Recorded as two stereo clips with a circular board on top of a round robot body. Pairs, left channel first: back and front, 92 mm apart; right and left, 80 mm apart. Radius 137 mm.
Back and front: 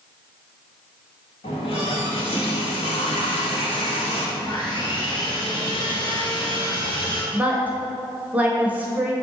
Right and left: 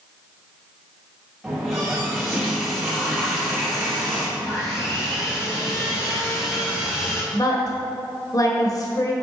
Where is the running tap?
Straight behind, 1.9 m.